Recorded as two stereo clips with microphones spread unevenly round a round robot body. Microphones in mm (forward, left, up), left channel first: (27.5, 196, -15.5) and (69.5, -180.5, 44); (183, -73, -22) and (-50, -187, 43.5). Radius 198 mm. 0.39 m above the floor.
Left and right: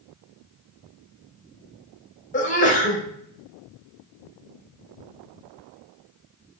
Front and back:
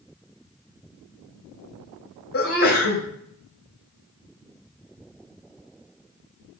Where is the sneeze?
40° left, 2 m.